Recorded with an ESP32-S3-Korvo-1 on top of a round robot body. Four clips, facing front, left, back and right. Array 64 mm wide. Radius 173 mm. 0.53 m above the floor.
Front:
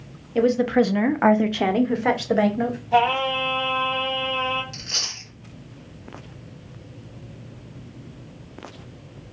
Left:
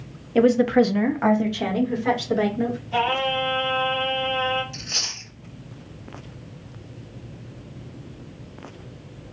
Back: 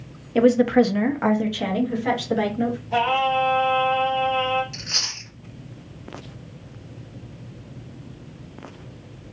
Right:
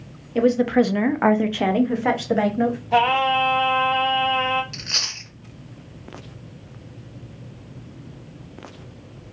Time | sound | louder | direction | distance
0.3 | a woman speaking | left 1 dB, back 2 dB | 150° left | 0.7 m
2.9 | singing | right 5 dB, front 1 dB | 90° right | 0.8 m
4.7 | chewing | right 2 dB, back 2 dB | 100° right | 1.7 m